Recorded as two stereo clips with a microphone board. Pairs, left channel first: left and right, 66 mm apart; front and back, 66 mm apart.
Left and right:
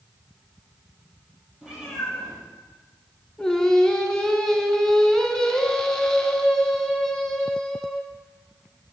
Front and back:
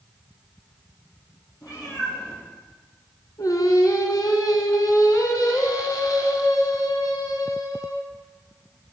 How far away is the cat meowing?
About 3.5 m.